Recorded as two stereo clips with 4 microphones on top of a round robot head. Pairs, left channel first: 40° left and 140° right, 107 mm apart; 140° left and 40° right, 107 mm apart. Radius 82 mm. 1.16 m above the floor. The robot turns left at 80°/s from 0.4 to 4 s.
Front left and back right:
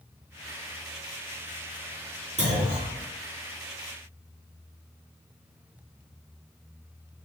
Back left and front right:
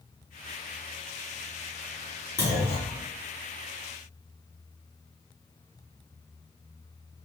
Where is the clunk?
155° right, 2 m; by 3.0 s 150° left, 2 m.